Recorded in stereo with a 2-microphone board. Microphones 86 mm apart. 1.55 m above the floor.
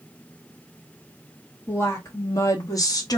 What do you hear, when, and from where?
1.7 s a woman speaking: 30° left (ahead or behind), 2.0 m; by 3.2 s 50° left (ahead or behind), 1.2 m